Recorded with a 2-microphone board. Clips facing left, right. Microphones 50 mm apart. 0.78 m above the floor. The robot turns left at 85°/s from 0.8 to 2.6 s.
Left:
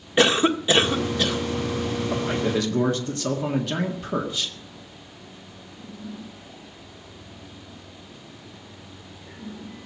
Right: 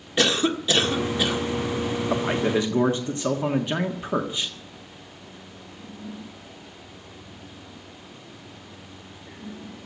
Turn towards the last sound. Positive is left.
turn(degrees=-155)